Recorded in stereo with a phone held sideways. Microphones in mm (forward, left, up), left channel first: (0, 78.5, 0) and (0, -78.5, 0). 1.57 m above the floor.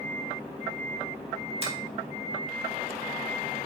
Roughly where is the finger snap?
Right.